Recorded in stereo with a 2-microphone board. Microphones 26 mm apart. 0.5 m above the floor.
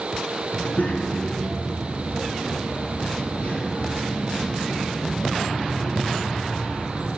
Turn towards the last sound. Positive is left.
turn(degrees=65)  # may be behind; listen again after turning